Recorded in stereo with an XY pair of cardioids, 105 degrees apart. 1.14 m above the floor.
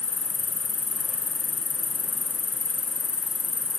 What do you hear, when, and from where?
0.0 s an insect: 20° left, 3.5 m